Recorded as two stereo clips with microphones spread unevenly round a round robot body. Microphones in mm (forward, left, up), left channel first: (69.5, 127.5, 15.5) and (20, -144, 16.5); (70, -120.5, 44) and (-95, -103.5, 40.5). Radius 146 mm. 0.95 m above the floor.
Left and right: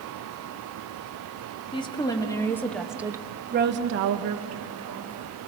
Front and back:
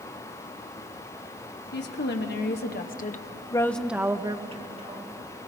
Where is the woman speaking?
10° left, 2.5 m; by 5.1 s 140° right, 2 m.